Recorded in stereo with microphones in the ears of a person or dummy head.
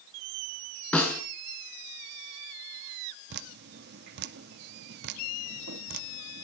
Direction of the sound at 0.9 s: 10° left (ahead or behind).